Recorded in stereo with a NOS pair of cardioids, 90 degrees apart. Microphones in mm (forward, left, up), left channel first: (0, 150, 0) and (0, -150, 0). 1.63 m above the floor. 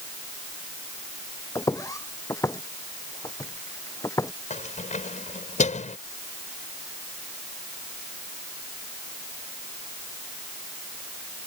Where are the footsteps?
10° left.